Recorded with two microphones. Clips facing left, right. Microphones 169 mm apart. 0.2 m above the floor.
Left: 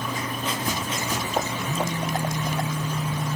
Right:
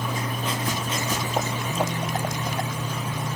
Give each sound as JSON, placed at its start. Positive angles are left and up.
{"t": 1.6, "sound": "a phone buzzing", "side_deg": 35, "distance_m": 6.5}